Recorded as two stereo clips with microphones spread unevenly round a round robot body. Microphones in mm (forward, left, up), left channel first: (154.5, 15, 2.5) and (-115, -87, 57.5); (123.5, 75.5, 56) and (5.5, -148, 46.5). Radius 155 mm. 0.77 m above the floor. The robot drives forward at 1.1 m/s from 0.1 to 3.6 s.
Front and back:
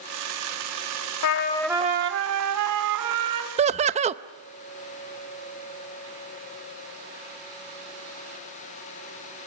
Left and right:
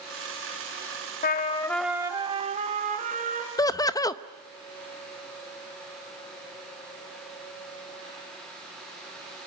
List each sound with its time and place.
1.2 s a trumpet: 30° left, 0.6 m; by 3.5 s 175° left, 2 m
3.6 s laughter: 125° left, 0.6 m; by 4.2 s 130° left, 0.6 m